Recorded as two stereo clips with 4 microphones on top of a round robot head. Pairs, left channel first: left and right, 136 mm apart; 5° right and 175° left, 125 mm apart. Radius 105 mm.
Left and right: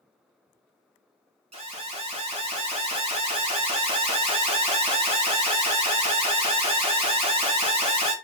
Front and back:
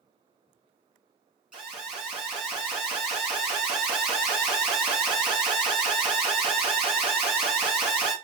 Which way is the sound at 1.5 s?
105° right.